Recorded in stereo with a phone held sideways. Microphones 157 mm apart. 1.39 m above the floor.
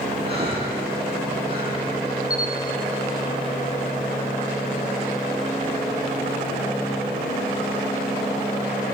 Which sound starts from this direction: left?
A camera shutter, at 2.3 s.